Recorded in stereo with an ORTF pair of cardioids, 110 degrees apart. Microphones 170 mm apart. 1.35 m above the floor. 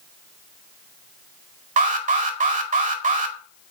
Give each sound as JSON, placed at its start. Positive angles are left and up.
{"t": 1.8, "sound": "an alarm", "azimuth_deg": -50, "distance_m": 1.9}